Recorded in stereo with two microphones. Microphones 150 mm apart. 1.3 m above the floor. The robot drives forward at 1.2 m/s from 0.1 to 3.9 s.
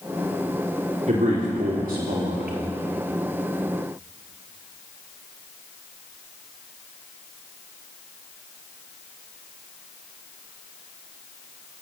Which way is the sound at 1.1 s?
60° right (ahead or behind).